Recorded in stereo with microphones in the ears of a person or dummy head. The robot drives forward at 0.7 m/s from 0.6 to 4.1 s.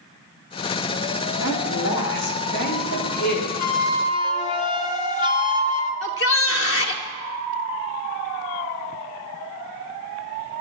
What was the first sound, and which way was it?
A woman speaking, 80° left.